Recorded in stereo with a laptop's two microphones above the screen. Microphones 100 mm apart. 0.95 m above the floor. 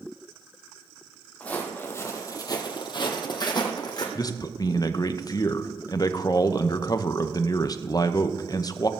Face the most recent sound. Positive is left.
turn(degrees=35)  # may be behind; listen again after turning